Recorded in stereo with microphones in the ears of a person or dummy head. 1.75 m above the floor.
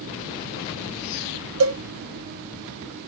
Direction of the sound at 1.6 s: 85° right.